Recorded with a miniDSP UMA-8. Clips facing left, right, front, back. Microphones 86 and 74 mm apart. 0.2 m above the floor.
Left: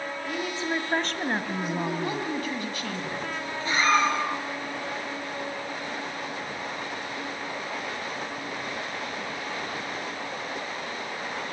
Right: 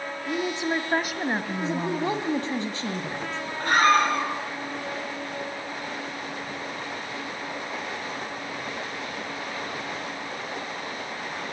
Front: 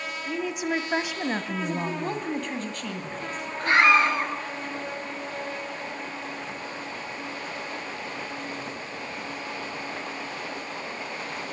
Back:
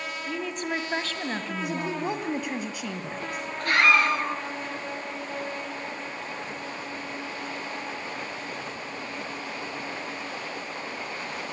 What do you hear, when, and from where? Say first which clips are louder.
0.3 s a woman speaking: right 4 dB, front 3 dB; 80° right, 1.3 m; by 2.3 s 30° left, 1.4 m
1.6 s a woman speaking: right 2 dB, even; 105° right, 1.7 m
3.6 s a scream: right 3 dB, front 2 dB; 65° right, 4 m